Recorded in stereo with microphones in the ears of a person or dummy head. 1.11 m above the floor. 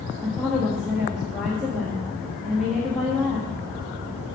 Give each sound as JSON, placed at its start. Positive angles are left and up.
{"t": 0.2, "sound": "a woman speaking", "side_deg": 0, "distance_m": 1.5}